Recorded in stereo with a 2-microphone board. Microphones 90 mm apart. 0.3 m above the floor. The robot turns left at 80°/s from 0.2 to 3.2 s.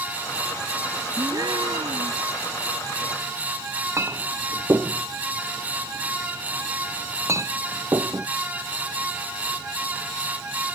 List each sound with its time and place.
1.2 s a gasp: 30° right; by 2.2 s 115° right
4.0 s a clink: 35° right (ahead or behind)